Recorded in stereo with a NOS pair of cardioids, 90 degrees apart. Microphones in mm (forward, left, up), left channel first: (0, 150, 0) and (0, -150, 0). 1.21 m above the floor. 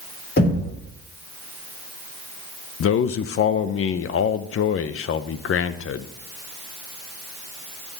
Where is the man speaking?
45° left, 0.8 m.